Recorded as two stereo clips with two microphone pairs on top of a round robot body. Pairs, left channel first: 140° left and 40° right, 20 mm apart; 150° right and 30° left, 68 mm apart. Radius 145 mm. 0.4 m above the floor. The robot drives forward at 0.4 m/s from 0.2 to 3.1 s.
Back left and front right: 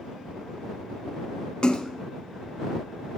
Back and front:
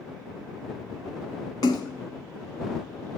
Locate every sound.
1.6 s a splash: straight behind, 0.6 m